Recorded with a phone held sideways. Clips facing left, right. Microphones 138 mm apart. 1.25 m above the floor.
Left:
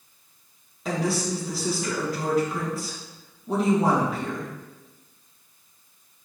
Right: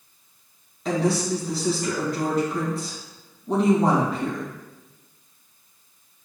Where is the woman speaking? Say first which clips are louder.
Right 3 dB; 5° left (ahead or behind), 1.9 m.